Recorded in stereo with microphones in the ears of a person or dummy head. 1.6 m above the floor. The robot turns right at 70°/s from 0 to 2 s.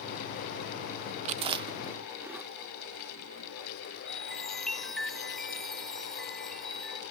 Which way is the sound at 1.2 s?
35° right (ahead or behind).